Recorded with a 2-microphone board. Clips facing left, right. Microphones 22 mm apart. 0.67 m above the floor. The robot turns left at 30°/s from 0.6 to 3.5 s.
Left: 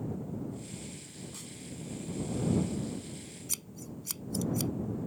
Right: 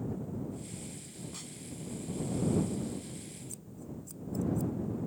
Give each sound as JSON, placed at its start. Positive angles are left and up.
{"t": 1.3, "sound": "a snare drum", "side_deg": -10}
{"t": 3.5, "sound": "scissors", "side_deg": 85}